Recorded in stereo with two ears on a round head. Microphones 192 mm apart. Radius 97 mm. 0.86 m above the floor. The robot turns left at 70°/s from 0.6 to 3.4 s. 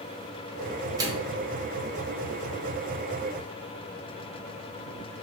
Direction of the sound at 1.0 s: 20° right (ahead or behind).